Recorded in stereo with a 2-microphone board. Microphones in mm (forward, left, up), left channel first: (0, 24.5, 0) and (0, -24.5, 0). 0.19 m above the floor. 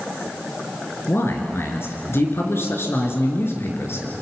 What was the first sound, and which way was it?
A man speaking, 55° left (ahead or behind).